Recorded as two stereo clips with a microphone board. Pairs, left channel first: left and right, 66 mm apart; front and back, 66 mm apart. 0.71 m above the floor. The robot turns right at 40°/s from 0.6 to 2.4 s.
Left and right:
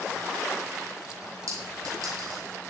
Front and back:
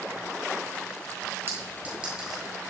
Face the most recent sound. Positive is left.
turn(degrees=-90)